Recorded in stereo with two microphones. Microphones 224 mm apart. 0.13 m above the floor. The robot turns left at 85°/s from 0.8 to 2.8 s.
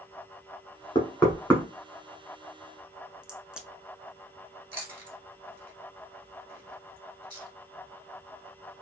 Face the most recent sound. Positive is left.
turn(degrees=-20)  # may be behind; listen again after turning